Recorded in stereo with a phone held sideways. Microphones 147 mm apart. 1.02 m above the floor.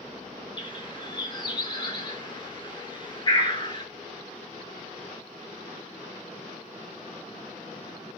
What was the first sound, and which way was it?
A bird, 35° left (ahead or behind).